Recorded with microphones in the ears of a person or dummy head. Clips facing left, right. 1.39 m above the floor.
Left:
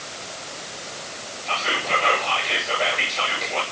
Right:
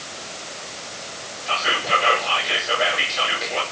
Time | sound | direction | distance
1.5 | whispering | 10° right (ahead or behind) | 5.5 m